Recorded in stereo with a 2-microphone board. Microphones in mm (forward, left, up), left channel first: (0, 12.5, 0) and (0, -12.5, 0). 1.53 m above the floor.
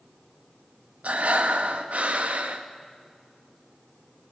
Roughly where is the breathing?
Right.